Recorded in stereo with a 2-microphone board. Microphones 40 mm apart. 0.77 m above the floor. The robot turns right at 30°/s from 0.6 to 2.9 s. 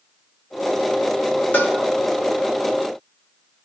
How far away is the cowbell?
About 1.6 m.